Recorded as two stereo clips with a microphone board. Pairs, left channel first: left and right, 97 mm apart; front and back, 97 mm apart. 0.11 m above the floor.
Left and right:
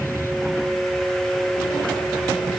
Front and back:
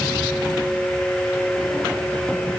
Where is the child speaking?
No child speaking in this recording.